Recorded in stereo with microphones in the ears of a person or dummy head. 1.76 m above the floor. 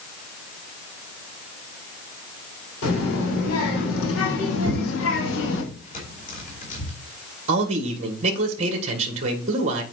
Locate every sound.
2.8 s a child speaking: 80° left, 4 m; by 5.6 s 70° left (ahead or behind), 2 m
4.6 s tearing paper: 50° left (ahead or behind), 3.5 m
7.5 s a man speaking: 40° right (ahead or behind), 1.6 m